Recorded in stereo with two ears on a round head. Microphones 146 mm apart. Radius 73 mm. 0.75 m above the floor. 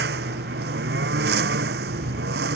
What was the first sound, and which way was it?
A lawn mower, 70° right (ahead or behind).